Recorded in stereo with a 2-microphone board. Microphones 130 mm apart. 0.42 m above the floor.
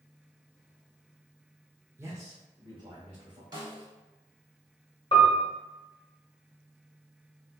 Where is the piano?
45° left (ahead or behind), 1.1 m.